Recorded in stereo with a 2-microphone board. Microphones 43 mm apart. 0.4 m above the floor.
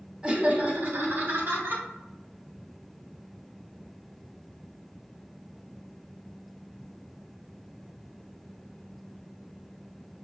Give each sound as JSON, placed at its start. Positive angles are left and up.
{"t": 0.2, "sound": "laughter", "side_deg": -20, "distance_m": 0.8}